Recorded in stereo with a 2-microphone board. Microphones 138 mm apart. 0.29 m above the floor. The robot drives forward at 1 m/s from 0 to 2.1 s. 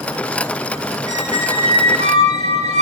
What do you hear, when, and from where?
1.1 s a squeak: 30° right (ahead or behind), 2 m; by 2.8 s 55° right (ahead or behind), 1.3 m